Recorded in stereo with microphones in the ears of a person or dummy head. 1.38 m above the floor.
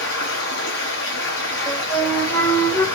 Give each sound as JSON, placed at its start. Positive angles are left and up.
{"t": 0.0, "sound": "running water", "side_deg": 60, "distance_m": 1.1}
{"t": 1.7, "sound": "a flute", "side_deg": 10, "distance_m": 0.5}